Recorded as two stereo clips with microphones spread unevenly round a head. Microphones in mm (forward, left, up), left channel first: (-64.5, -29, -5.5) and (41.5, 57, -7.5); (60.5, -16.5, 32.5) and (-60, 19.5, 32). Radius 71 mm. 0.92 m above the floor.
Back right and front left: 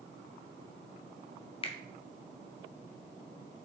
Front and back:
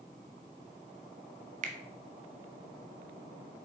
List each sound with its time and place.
1.6 s a finger snap: 170° left, 0.9 m